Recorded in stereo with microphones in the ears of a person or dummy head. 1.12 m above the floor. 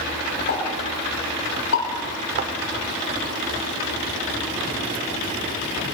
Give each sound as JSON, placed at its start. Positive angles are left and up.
{"t": 0.5, "sound": "a pop", "side_deg": 75, "distance_m": 7.0}
{"t": 2.4, "sound": "a thud", "side_deg": -55, "distance_m": 1.7}